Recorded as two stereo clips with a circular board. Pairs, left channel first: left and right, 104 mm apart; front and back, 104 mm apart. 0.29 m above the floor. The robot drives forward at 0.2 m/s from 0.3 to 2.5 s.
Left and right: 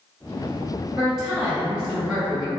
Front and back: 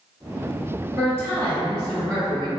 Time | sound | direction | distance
1.0 | a woman speaking | 165° right | 1.2 m